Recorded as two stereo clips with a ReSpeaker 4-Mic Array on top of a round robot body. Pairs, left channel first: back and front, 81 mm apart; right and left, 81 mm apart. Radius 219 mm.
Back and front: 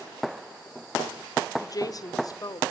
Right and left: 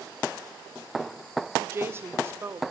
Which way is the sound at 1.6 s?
145° left.